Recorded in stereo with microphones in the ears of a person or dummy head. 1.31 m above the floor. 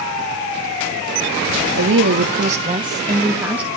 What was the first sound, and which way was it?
A woman speaking, 70° right (ahead or behind).